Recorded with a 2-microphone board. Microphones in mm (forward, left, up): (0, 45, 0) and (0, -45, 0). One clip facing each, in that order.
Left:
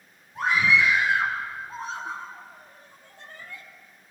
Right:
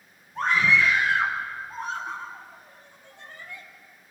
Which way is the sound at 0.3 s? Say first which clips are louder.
Even; 10° left (ahead or behind).